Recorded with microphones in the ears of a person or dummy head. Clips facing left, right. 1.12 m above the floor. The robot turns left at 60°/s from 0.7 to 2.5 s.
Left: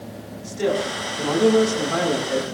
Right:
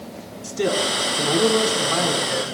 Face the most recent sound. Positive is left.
turn(degrees=115)